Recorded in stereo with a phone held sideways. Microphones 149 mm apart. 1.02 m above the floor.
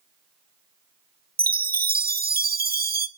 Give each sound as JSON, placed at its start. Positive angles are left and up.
{"t": 1.4, "sound": "a chime", "side_deg": -85, "distance_m": 0.7}